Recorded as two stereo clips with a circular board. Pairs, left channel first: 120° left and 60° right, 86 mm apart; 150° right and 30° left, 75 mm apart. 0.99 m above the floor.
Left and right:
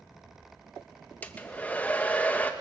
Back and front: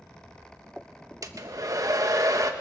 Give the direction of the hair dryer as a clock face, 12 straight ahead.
10 o'clock.